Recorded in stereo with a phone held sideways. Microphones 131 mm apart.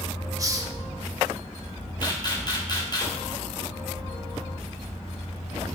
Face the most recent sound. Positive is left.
turn(degrees=35)  # may be behind; listen again after turning